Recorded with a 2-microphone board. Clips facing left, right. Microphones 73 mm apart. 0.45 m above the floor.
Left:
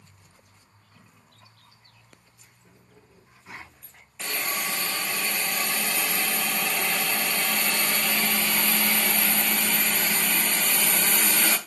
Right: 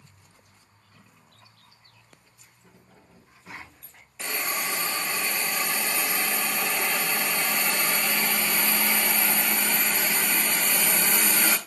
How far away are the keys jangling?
About 3 m.